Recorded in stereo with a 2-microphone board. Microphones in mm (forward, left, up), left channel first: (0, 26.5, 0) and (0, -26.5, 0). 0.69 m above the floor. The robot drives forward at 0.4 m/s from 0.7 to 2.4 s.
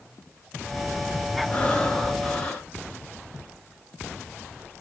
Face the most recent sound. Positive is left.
turn(degrees=15)  # may be behind; listen again after turning